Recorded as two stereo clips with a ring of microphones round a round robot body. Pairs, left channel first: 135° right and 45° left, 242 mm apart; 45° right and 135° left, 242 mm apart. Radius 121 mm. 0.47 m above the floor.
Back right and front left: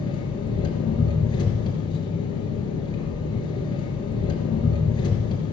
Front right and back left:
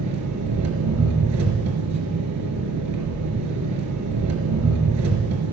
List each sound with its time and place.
0.0 s an engine running: 155° left, 2.5 m